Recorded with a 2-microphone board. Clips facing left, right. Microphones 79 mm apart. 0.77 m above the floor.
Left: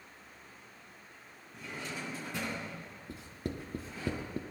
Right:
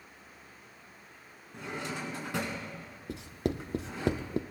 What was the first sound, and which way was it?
A drawer, 80° right.